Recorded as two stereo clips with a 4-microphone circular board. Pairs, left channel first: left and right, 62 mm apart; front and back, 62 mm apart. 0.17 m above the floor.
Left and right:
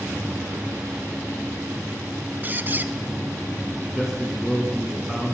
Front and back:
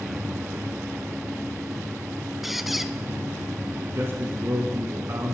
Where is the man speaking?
165° right, 1.8 m.